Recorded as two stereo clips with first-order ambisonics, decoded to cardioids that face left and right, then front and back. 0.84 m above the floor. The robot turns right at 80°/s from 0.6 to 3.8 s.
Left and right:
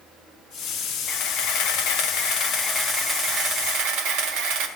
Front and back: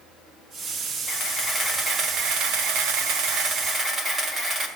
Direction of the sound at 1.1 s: 30° left.